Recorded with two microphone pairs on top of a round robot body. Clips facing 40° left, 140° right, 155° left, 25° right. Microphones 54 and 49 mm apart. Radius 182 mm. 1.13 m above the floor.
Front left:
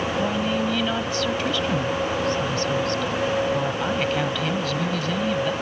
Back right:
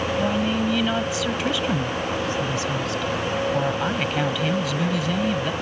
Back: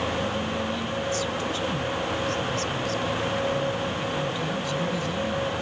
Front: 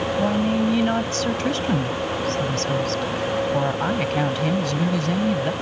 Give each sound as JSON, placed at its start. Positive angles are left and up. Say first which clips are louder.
{"t": 0.2, "sound": "a woman speaking", "louder": "back right 1 dB, front 7 dB", "azimuth_deg": -55}